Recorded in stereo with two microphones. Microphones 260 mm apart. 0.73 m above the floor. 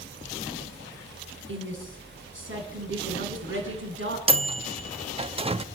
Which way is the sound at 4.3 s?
20° right (ahead or behind).